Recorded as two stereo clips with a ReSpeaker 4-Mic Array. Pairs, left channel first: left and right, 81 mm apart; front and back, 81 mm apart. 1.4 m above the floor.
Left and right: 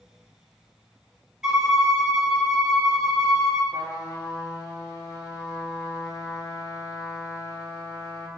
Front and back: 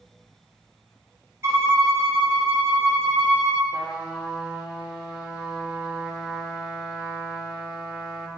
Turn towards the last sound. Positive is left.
turn(degrees=110)